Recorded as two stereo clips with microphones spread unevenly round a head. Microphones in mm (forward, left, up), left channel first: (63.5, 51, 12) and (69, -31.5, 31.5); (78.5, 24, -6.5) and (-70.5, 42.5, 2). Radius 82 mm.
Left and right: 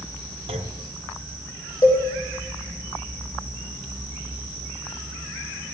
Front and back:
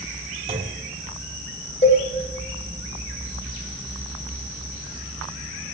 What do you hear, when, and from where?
0.5 s a clunk: 125° right, 1.5 m
1.8 s a cowbell: 40° left, 7 m